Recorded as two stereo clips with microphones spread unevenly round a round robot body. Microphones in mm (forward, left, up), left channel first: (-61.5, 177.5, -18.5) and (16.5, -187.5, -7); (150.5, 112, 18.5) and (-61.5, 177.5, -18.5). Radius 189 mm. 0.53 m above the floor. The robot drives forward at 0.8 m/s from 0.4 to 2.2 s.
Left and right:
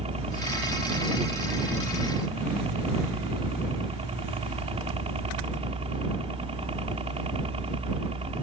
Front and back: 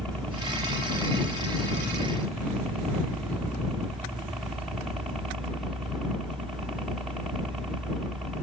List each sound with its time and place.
0.0 s a helicopter: 125° right; by 8.4 s 130° right